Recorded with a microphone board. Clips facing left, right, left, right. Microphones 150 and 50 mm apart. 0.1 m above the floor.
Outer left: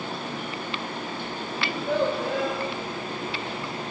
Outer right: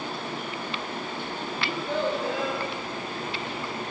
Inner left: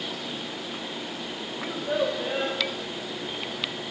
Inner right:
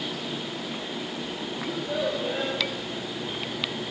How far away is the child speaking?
About 6 m.